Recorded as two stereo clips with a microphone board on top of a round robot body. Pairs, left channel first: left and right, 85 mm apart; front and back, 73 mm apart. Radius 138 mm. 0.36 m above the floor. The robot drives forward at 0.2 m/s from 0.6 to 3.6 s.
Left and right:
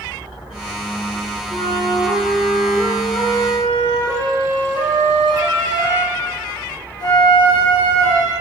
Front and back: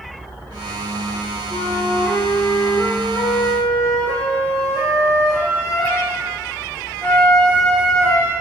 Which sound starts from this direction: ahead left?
A flute, at 1.5 s.